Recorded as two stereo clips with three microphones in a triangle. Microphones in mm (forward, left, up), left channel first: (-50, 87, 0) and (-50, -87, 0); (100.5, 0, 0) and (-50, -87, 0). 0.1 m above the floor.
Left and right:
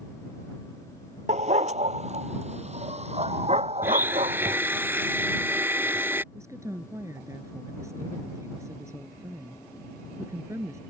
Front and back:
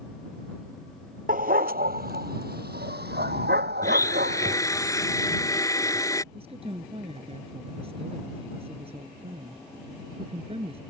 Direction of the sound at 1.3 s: 130° right.